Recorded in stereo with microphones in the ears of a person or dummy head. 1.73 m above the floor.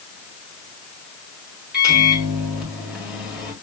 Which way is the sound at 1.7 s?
5° right (ahead or behind).